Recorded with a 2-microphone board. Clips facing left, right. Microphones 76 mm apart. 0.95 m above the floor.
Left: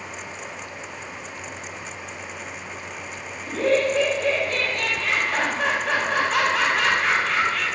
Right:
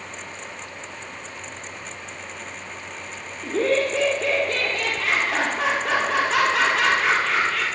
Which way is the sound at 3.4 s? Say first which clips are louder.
Left 1 dB; 85° right.